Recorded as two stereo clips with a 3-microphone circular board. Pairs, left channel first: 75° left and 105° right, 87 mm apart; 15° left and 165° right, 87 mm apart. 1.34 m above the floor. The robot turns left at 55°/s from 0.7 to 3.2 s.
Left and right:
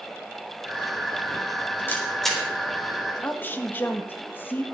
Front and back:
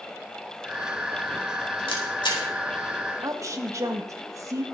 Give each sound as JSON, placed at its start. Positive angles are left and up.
{"t": 1.9, "sound": "a camera shutter", "azimuth_deg": 10, "distance_m": 3.5}
{"t": 3.2, "sound": "a woman speaking", "azimuth_deg": 140, "distance_m": 1.5}